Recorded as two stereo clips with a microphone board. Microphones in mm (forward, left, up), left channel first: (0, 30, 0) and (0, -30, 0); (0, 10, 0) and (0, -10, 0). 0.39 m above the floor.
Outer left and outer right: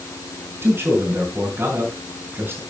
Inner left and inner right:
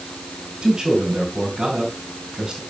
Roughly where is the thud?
I don't hear a thud.